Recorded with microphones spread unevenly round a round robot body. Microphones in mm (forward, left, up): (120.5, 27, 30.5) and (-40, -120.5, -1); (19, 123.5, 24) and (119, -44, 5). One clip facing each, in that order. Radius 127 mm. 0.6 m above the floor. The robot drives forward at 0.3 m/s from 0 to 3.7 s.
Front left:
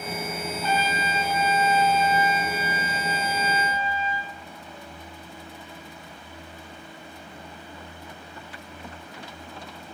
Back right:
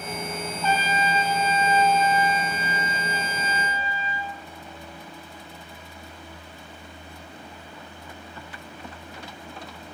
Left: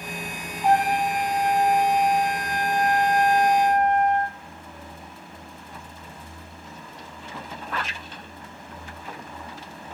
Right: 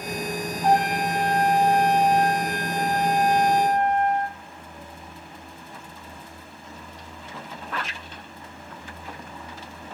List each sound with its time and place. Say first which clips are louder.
0.6 s a trumpet: back right 2 dB, left 1 dB; 155° right, 3 m; by 4.3 s 160° right, 3.5 m